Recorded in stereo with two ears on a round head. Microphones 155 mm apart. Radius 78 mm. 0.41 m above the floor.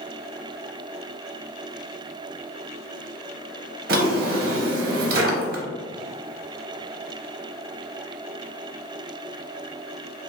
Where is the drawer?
55° right (ahead or behind), 0.6 m.